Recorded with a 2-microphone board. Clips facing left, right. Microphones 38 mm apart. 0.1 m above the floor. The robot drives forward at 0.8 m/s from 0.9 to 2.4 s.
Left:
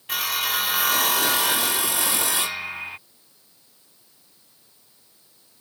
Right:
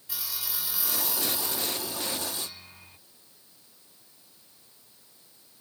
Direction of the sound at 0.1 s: 55° left (ahead or behind).